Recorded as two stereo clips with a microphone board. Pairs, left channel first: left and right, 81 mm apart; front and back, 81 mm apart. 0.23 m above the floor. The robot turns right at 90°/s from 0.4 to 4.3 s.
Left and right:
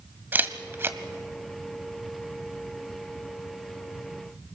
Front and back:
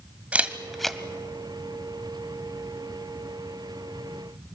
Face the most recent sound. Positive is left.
turn(degrees=-135)